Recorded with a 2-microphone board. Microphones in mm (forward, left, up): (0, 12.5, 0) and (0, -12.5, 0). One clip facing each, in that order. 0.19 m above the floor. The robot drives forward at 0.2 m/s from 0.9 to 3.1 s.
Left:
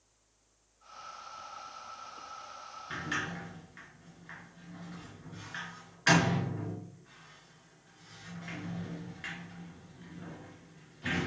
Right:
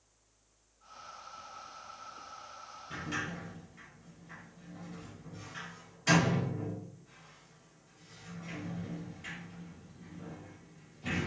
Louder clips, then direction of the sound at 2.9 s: Left 2 dB; 60° left (ahead or behind).